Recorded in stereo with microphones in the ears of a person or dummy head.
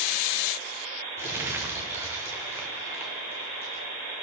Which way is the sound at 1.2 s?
10° right (ahead or behind).